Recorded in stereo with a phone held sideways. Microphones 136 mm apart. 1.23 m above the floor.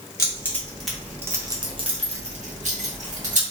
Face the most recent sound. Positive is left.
turn(degrees=-80)